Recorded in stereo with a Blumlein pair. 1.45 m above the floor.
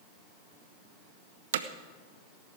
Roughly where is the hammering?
Ahead right.